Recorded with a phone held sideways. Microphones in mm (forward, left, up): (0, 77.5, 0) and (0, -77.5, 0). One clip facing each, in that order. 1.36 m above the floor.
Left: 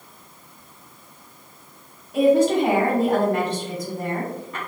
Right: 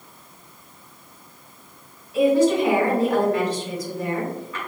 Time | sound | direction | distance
2.1 | a woman speaking | 55° left (ahead or behind) | 1.7 m